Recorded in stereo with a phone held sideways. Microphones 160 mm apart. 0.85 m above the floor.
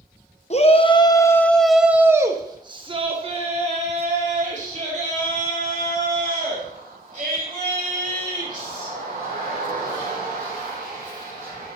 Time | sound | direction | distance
0.5 | a shout | 45° left (ahead or behind) | 0.9 m